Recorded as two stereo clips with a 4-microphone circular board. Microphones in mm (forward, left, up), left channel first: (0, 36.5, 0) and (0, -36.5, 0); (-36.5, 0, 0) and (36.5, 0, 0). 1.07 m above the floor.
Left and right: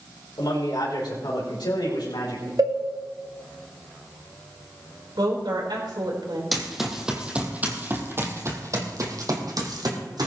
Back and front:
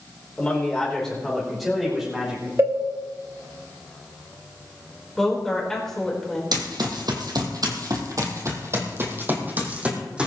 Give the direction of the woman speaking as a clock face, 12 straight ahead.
3 o'clock.